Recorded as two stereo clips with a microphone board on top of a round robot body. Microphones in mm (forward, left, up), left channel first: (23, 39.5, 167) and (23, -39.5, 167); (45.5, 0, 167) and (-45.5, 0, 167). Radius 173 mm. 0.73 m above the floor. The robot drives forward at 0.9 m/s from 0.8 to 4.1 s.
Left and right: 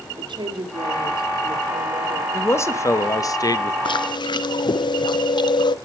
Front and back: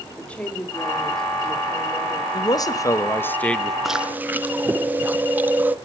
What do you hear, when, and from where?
0.2 s a woman speaking: 75° right, 3 m; by 2.2 s 100° right, 3 m
2.3 s a man speaking: 35° left, 1.8 m; by 3.8 s 85° left, 1.3 m
3.9 s chewing: 90° left, 0.8 m; by 5.8 s 110° left, 0.8 m